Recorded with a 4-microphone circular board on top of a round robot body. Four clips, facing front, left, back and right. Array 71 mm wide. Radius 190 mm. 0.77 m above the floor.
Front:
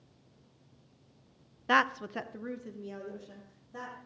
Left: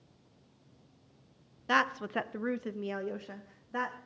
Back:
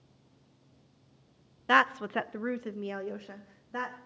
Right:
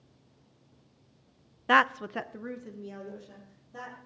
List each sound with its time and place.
1.7 s a woman speaking: 105° right, 0.8 m; by 4.0 s 135° left, 2 m